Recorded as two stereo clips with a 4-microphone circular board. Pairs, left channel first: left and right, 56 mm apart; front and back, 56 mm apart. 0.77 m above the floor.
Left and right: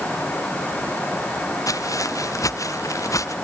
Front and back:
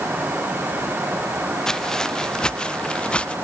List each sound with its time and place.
1.7 s footsteps: 80° left; by 3.4 s 70° left